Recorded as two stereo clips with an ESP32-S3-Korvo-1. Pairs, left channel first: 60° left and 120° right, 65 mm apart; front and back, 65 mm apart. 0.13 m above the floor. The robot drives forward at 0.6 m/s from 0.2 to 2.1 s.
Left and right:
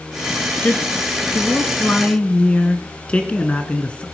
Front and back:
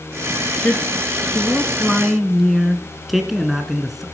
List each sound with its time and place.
0.6 s a man speaking: 35° left, 1.7 m; by 4.0 s 95° left, 1.5 m